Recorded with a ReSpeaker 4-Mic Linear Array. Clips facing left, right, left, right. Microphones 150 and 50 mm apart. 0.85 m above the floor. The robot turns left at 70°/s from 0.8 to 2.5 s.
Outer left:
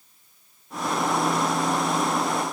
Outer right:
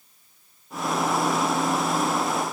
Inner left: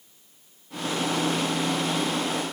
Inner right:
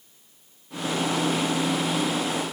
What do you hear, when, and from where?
Only background noise.